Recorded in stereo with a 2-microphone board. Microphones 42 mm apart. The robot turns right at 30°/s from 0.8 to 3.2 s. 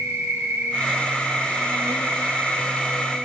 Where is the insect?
100° right, 2.5 m; by 3.2 s 30° right, 2.5 m.